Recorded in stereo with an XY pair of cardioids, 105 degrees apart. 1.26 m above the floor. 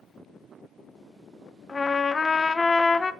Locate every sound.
1.7 s a trumpet: 25° left, 0.8 m